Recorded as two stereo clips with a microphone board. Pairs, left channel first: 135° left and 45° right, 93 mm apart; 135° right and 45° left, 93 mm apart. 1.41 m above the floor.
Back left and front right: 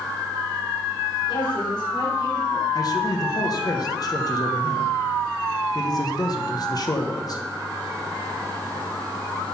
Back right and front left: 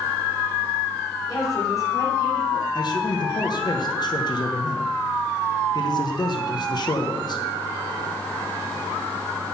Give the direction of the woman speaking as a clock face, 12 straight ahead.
6 o'clock.